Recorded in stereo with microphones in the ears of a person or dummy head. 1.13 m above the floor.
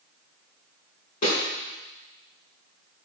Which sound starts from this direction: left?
A snare drum, at 1.2 s.